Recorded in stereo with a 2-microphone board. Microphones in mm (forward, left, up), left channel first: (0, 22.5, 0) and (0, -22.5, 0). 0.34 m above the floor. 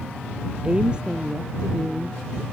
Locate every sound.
0.6 s a woman speaking: 25° right (ahead or behind); by 2.4 s 15° right (ahead or behind)